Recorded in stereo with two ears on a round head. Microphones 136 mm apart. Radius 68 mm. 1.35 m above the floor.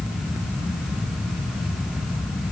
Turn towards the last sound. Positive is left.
No sound to turn to.